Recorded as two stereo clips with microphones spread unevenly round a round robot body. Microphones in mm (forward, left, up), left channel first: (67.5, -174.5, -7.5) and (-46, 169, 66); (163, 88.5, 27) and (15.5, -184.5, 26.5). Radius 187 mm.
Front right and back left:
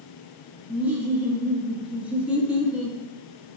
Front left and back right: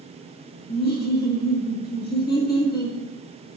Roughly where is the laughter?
Ahead.